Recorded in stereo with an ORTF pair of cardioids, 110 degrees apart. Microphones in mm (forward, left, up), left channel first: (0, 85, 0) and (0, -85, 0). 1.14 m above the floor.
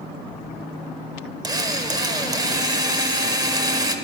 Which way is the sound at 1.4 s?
25° right.